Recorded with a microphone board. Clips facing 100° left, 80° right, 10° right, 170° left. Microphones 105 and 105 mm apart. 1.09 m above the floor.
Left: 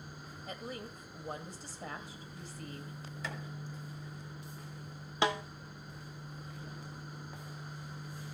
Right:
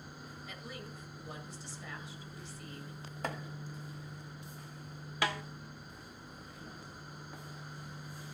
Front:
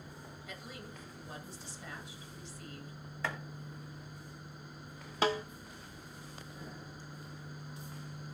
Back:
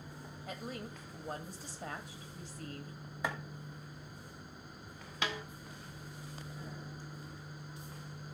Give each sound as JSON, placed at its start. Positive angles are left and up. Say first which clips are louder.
{"t": 0.5, "sound": "a woman speaking", "louder": "left 6 dB, back 6 dB", "azimuth_deg": 135, "distance_m": 2.0}
{"t": 3.2, "sound": "chopping", "louder": "right 4 dB, back 1 dB", "azimuth_deg": -115, "distance_m": 1.0}
{"t": 5.2, "sound": "a snare drum", "louder": "left 4 dB, front 8 dB", "azimuth_deg": 35, "distance_m": 0.7}